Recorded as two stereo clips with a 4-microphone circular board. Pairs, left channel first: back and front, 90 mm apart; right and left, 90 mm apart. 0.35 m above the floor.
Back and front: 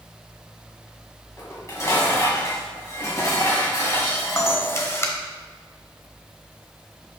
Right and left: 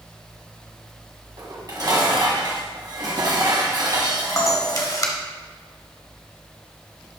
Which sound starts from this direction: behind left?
Dishes clattering, at 1.4 s.